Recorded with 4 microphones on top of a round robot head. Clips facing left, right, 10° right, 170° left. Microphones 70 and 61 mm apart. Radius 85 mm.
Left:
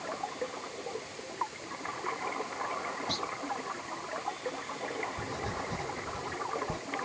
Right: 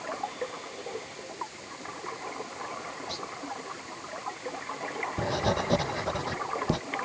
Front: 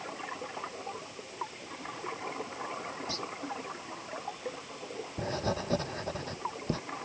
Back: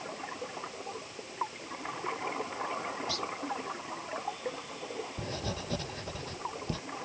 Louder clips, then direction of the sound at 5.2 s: Right 8 dB, front 4 dB; 65° right.